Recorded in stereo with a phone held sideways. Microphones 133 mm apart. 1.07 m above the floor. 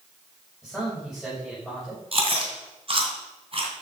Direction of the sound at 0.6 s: Centre (ahead or behind).